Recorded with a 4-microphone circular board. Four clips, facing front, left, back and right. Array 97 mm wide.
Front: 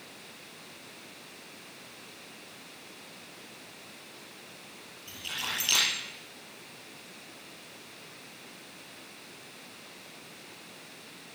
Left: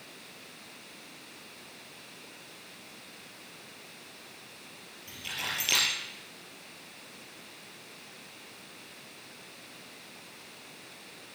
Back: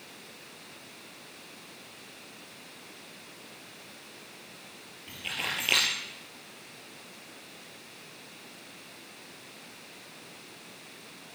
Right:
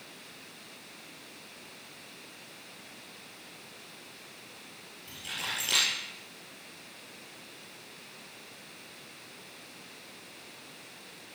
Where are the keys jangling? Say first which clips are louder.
Left 1 dB, back 2 dB; 175° left, 6 m.